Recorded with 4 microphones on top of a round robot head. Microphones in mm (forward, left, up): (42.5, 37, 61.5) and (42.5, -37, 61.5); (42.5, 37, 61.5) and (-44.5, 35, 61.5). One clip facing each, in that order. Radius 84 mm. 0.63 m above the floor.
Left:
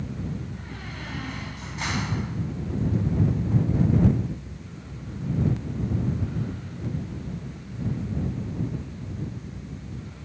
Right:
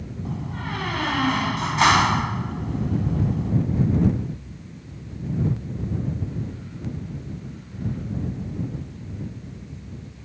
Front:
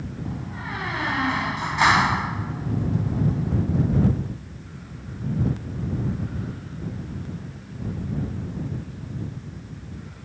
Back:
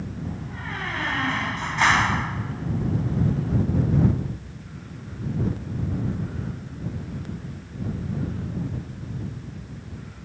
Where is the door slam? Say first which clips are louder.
Right 4 dB, front 1 dB; 80° right.